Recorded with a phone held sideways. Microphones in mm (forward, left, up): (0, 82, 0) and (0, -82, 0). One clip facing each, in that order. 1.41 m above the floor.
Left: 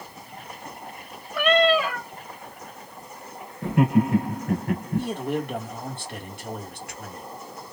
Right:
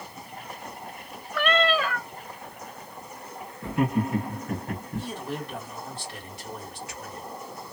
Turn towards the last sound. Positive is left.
turn(degrees=65)  # may be behind; listen again after turning